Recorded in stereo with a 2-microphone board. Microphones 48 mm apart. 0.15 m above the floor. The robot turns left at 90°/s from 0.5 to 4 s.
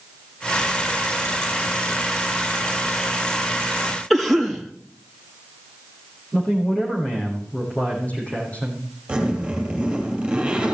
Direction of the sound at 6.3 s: 30° left (ahead or behind).